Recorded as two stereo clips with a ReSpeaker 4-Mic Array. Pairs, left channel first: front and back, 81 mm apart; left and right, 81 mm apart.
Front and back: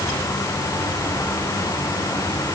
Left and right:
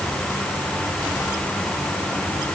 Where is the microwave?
No microwave in this recording.